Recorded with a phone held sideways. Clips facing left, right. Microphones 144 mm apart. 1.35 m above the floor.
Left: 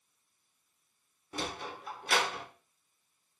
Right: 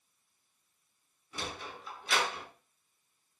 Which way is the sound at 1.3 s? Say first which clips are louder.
Left 3 dB; 55° left (ahead or behind).